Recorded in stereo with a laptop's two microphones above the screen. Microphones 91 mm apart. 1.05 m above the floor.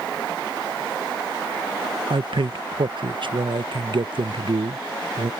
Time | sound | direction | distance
2.1 | a man speaking | 60° right (ahead or behind) | ?